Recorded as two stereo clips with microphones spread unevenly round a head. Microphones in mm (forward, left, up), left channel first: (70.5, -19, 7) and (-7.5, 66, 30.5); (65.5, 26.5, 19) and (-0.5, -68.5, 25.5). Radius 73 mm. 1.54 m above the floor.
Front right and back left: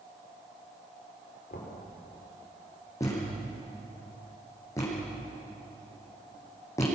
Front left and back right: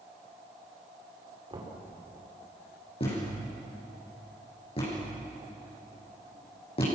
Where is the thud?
20° left, 9.5 m.